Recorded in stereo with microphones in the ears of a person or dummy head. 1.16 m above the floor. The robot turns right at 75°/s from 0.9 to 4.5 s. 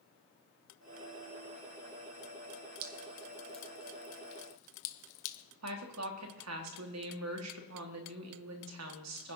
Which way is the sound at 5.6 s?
85° right.